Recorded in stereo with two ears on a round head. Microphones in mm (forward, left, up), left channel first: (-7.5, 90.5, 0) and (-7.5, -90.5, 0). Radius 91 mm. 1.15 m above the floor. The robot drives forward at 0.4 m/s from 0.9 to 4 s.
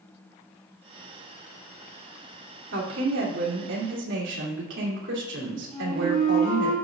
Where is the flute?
30° right (ahead or behind), 3 m.